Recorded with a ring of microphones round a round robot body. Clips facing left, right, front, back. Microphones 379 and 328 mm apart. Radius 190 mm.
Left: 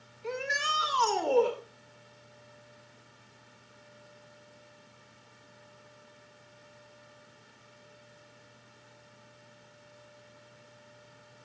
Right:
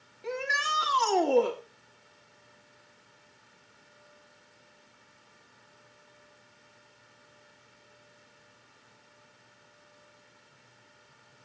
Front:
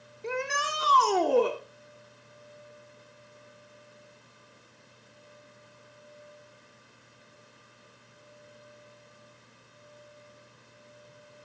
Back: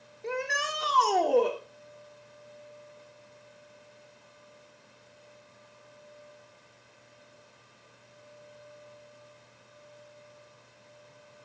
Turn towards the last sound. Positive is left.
turn(degrees=-80)